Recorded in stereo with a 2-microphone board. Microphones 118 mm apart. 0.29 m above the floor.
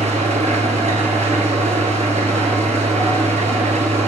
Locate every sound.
0.0 s an engine running: 80° right, 1.9 m